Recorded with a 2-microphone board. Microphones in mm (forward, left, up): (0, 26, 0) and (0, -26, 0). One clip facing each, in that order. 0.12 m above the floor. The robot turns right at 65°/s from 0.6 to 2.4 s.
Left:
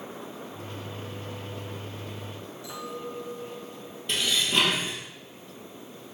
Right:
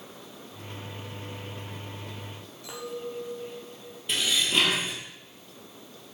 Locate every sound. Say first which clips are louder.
2.6 s a clink: right 1 dB; 55° right (ahead or behind), 1.8 m
4.1 s dishes clattering: even; 5° right (ahead or behind), 1.8 m